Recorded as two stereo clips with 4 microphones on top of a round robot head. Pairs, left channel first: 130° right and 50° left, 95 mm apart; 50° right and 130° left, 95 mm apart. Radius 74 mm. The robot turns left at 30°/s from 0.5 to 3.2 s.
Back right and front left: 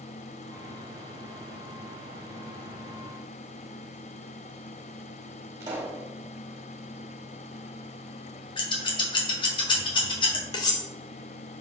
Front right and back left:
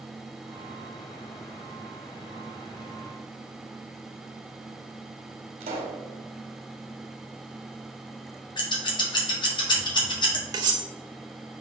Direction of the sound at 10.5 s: Straight behind.